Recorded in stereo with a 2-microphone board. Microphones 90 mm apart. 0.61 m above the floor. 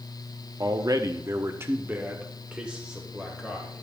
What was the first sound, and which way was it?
A man speaking, 40° right (ahead or behind).